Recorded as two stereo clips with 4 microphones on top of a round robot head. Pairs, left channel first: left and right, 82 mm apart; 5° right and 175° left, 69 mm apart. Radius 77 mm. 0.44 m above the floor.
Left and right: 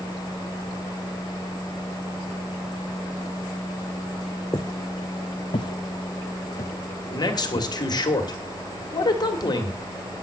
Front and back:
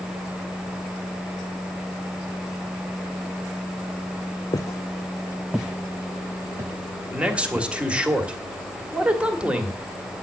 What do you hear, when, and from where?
4.5 s footsteps: 30° left, 0.7 m; by 7.7 s 150° left, 1.5 m
7.1 s a man speaking: 105° left, 2 m